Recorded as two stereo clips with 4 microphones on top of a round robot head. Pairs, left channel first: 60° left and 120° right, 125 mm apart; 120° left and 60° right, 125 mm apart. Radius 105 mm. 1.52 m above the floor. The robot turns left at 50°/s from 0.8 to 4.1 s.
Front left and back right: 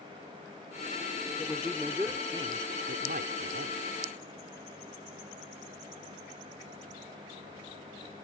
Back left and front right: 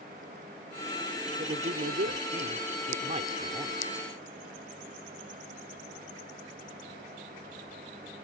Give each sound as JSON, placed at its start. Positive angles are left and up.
{"t": 1.4, "sound": "a man speaking", "azimuth_deg": -15}